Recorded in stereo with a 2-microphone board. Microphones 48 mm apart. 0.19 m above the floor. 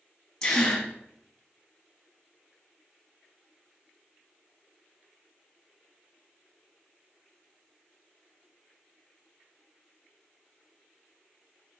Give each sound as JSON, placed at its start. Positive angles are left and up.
{"t": 0.4, "sound": "a gasp", "side_deg": 20, "distance_m": 1.4}